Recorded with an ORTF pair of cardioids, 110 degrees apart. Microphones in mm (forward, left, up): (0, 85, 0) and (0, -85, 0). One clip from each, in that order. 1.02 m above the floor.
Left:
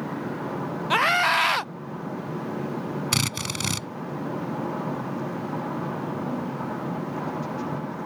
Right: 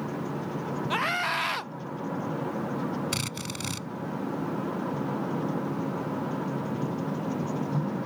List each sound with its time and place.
0.9 s a scream: 30° left
3.1 s a drill: 40° left